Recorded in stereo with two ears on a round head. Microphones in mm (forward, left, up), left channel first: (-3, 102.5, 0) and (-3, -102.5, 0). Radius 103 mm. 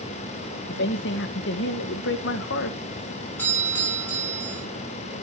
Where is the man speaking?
55° left (ahead or behind), 1.4 m.